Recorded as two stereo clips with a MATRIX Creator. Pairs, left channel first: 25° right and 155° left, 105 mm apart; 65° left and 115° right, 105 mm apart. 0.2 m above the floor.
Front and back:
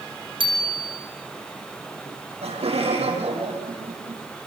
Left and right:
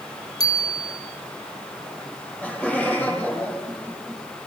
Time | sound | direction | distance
0.4 | a bicycle bell | 120° left | 3.5 m
2.1 | laughter | 145° left | 7 m